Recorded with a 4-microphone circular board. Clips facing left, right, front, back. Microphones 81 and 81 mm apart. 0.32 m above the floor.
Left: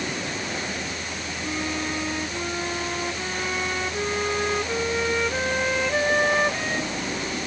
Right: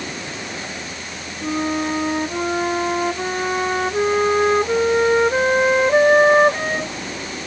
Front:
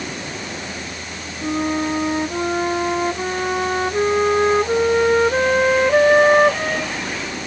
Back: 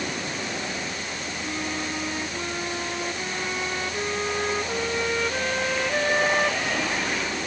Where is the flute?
40° right.